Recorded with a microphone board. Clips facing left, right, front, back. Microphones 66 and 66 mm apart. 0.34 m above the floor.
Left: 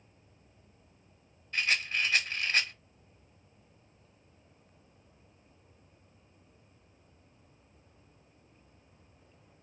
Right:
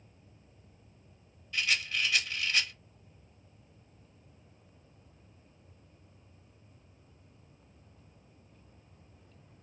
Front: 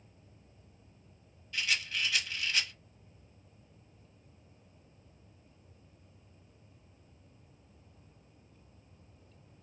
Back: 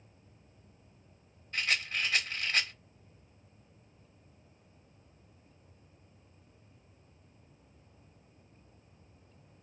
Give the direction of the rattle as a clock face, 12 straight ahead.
7 o'clock.